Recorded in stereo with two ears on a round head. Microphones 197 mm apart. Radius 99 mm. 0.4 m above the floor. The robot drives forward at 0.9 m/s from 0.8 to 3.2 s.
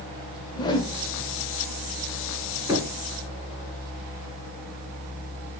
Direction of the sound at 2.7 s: 15° right (ahead or behind).